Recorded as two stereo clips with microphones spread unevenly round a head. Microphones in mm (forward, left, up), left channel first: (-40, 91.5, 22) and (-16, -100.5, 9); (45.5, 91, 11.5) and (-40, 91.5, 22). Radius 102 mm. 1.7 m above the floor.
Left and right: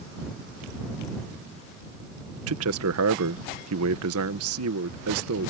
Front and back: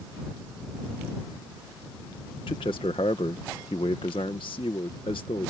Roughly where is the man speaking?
Ahead right.